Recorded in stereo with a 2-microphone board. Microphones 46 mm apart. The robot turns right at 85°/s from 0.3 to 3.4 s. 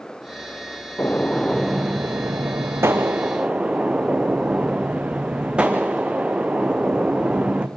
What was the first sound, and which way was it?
A gunshot, 130° left.